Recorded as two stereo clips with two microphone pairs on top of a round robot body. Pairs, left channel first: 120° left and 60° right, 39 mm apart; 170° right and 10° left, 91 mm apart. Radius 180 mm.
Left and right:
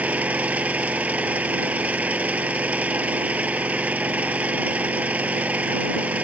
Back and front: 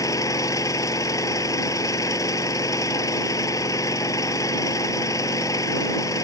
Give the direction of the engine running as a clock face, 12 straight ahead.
4 o'clock.